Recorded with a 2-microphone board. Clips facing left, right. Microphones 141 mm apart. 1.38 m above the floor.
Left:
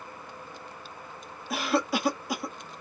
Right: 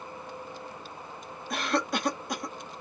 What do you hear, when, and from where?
1.5 s a cough: 5° left (ahead or behind), 0.6 m